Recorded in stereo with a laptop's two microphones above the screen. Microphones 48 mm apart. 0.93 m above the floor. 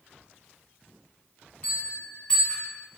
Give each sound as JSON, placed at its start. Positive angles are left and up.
{"t": 1.6, "sound": "a bell", "side_deg": 30, "distance_m": 2.5}